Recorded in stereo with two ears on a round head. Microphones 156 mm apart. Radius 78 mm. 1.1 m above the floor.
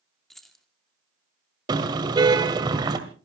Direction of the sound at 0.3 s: Centre (ahead or behind).